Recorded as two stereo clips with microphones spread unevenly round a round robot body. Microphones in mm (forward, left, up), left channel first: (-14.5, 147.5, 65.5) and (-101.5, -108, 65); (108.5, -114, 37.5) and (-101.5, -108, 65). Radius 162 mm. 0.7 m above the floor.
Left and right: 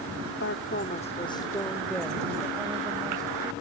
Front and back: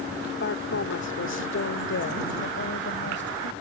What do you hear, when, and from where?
0.4 s a woman speaking: 30° left; by 3.5 s 30° right